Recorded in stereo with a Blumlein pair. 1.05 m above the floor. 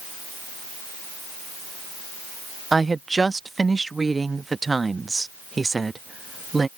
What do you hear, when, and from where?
2.7 s a woman speaking: 10° right